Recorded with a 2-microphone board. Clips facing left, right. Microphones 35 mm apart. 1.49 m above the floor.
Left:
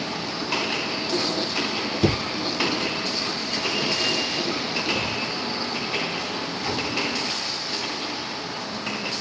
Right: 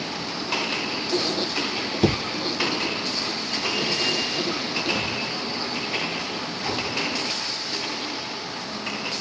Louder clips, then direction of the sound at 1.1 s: Right 1 dB; 20° right (ahead or behind).